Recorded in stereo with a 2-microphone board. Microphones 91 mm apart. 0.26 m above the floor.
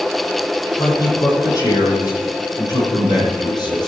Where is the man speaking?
40° left (ahead or behind), 8 m; by 3.9 s 55° left (ahead or behind), 10 m.